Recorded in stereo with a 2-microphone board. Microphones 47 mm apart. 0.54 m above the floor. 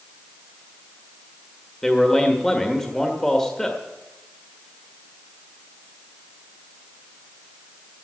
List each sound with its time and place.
1.8 s a man speaking: 10° left (ahead or behind), 1.5 m